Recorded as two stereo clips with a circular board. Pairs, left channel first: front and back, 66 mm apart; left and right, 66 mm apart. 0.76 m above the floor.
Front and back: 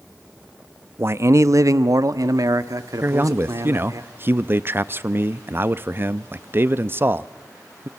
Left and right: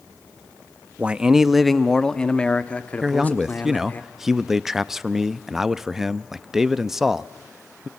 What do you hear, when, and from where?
1.0 s a man speaking: 150° right, 0.6 m; by 4.0 s 155° left, 1.8 m
3.0 s a man speaking: 170° right, 0.6 m